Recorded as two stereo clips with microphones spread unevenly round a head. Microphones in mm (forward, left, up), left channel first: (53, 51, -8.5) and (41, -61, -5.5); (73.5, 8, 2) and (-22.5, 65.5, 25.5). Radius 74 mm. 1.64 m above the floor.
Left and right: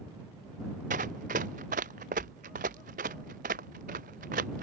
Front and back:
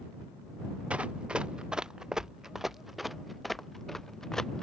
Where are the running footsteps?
130° right; by 4.6 s 120° right.